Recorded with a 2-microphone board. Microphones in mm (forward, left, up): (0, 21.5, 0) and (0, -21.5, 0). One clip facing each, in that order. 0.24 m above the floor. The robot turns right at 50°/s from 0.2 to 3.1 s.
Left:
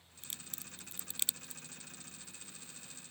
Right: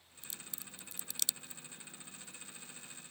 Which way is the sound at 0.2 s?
60° left (ahead or behind).